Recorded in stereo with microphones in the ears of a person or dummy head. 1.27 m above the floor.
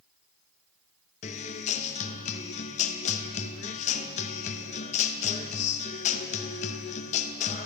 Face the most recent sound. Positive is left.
turn(degrees=35)  # may be behind; listen again after turning